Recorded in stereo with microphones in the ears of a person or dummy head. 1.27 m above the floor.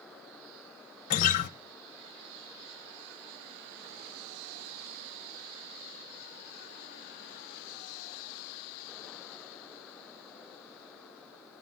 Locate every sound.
1.1 s a guitar: 40° left (ahead or behind), 0.6 m